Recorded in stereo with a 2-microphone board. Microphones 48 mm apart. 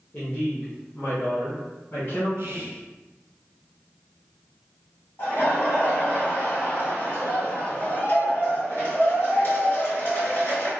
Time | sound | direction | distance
0.1 | a woman speaking | 40° left (ahead or behind) | 1.0 m
2.4 | whispering | 55° right (ahead or behind) | 0.8 m
5.2 | laughter | 55° left (ahead or behind) | 2.0 m